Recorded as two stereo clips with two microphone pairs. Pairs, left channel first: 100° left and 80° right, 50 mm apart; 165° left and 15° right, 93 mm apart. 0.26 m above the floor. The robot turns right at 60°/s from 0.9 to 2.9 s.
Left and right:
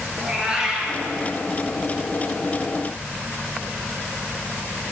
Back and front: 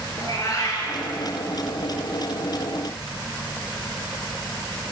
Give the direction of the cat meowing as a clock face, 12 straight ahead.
5 o'clock.